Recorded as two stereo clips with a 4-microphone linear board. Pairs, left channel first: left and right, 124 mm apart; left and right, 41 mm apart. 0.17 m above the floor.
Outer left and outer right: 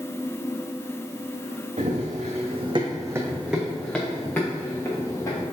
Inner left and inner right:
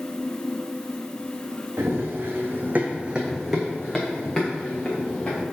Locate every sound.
1.8 s running footsteps: 80° right, 0.9 m; by 5.4 s 25° left (ahead or behind), 1.8 m